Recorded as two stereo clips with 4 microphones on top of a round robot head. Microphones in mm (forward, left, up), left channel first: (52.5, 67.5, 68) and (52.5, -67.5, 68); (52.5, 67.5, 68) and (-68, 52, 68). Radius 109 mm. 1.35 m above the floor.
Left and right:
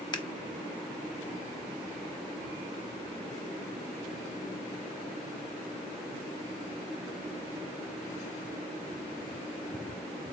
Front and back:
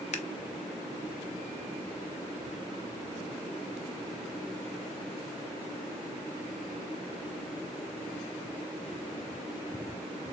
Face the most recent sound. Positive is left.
turn(degrees=35)